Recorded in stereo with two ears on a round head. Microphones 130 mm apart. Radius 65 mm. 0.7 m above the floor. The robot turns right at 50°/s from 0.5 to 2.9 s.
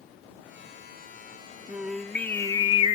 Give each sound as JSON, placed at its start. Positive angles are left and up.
{"t": 1.7, "sound": "singing", "azimuth_deg": -15}